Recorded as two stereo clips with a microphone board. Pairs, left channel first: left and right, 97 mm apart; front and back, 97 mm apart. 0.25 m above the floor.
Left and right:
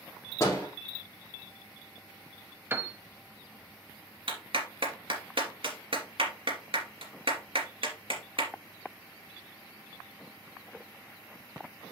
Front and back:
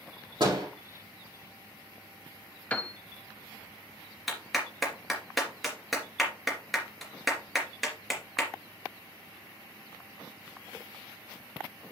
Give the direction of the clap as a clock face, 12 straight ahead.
3 o'clock.